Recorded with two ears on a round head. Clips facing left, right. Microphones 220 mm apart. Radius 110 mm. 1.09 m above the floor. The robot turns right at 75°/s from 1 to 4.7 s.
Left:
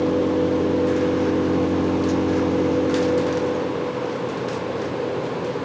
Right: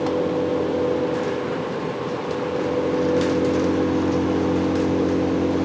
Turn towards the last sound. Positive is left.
turn(degrees=-60)